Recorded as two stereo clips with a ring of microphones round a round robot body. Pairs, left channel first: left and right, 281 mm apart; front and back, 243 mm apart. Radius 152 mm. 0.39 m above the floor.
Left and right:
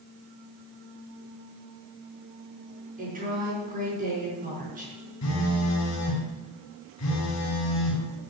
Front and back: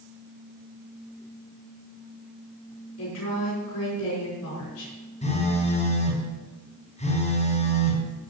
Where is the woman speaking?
30° right, 5.5 m.